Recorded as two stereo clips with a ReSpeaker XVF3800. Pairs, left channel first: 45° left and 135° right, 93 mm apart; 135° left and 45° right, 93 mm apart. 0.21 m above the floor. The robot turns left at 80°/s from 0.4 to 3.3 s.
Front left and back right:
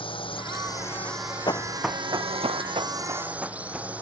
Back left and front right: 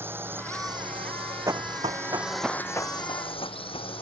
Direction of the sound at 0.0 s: 20° left.